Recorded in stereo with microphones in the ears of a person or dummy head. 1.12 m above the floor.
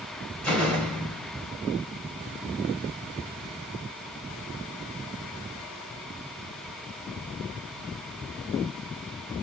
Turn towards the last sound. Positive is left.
turn(degrees=10)  # may be behind; listen again after turning